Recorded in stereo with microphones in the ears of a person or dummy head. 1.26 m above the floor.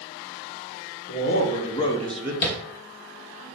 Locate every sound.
1.1 s a man speaking: 55° left (ahead or behind), 1.2 m; by 2.3 s 15° right (ahead or behind), 0.7 m
2.4 s tapping: 45° left (ahead or behind), 1.2 m